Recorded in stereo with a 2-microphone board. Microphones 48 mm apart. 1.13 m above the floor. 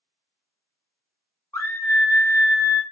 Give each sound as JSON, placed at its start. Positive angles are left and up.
{"t": 1.5, "sound": "a scream", "side_deg": 75, "distance_m": 0.8}